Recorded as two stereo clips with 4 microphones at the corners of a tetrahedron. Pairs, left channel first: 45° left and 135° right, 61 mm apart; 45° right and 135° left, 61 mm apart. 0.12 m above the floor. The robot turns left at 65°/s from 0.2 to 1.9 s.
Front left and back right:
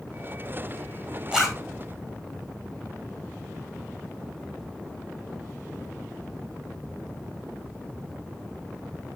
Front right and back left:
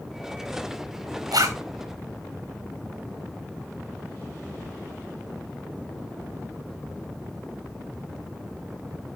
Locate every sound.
1.3 s a zipper: 150° left, 1.4 m; by 1.6 s 125° left, 1.4 m